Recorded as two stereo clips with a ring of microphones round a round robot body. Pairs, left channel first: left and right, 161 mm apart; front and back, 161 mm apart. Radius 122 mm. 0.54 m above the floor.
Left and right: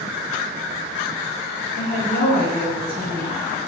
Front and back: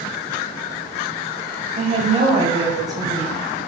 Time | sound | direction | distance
1.7 | a woman speaking | 135° left | 3.5 m